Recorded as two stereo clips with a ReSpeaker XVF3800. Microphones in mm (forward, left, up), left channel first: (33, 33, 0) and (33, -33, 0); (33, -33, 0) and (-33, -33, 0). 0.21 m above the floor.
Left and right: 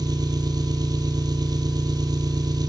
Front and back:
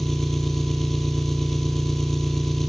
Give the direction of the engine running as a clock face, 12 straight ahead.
3 o'clock.